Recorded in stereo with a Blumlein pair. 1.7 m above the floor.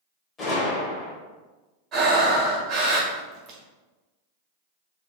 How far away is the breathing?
About 1.5 m.